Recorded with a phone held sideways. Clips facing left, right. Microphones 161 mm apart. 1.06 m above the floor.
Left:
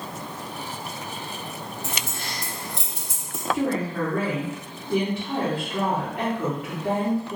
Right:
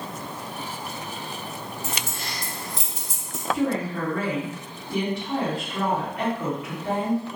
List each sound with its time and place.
1.8 s keys jangling: 65° left (ahead or behind), 1.0 m
3.5 s a woman speaking: 45° left (ahead or behind), 1.4 m